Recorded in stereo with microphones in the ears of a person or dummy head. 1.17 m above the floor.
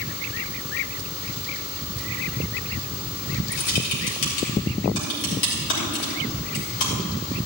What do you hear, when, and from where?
3.5 s typing on a keyboard: 70° left (ahead or behind), 3 m